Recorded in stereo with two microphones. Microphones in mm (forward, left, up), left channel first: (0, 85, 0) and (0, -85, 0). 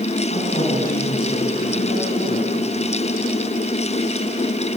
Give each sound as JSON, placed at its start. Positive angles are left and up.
{"t": 0.3, "sound": "a woman speaking", "side_deg": 60, "distance_m": 7.0}